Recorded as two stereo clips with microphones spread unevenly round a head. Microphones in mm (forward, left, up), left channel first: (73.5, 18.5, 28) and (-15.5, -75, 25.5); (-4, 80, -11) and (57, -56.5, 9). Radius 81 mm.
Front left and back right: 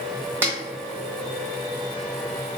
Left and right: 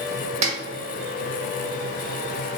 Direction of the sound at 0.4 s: 65° right.